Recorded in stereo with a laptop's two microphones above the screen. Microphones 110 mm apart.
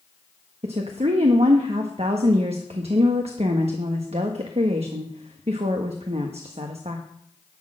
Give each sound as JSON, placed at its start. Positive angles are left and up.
{"t": 0.6, "sound": "a woman speaking", "side_deg": -65, "distance_m": 1.3}